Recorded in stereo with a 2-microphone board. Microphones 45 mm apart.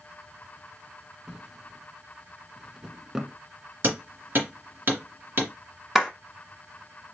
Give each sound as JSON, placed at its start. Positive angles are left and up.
{"t": 1.3, "sound": "a drawer", "side_deg": -10, "distance_m": 0.5}
{"t": 3.8, "sound": "hammering", "side_deg": -50, "distance_m": 2.0}
{"t": 6.0, "sound": "a clap", "side_deg": -10, "distance_m": 1.3}